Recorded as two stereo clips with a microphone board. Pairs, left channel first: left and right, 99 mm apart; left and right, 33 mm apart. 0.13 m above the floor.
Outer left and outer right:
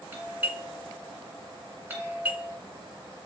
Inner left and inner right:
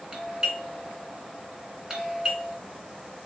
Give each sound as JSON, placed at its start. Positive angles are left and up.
{"t": 0.1, "sound": "a doorbell", "side_deg": -20, "distance_m": 1.8}